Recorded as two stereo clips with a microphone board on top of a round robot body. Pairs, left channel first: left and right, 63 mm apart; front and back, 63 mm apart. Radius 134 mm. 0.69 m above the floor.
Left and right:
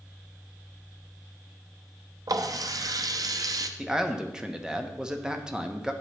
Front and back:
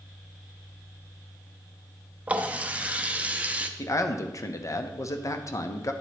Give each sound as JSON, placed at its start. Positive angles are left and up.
{"t": 2.3, "sound": "a running tap", "azimuth_deg": -110, "distance_m": 0.8}
{"t": 3.8, "sound": "a man speaking", "azimuth_deg": -15, "distance_m": 1.1}